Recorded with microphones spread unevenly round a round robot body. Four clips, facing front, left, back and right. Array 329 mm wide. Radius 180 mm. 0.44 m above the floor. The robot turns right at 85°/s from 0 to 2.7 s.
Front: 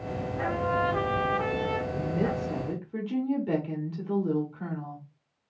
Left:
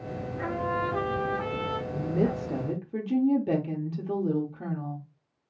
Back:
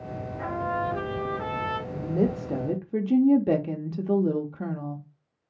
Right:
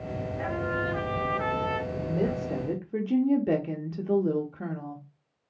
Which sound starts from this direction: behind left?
A woman speaking, at 1.9 s.